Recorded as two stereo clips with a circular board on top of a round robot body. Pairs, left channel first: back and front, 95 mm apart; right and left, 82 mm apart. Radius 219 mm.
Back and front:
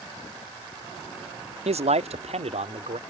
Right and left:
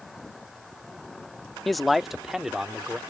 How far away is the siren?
No siren in this recording.